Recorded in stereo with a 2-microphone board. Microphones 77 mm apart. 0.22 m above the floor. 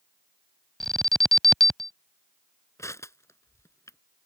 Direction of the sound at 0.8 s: 5° left (ahead or behind).